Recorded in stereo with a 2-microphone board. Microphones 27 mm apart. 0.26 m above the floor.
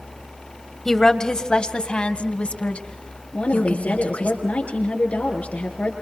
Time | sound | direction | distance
0.8 | a woman speaking | 20° left (ahead or behind) | 1.4 m
3.3 | a woman speaking | 65° left (ahead or behind) | 6 m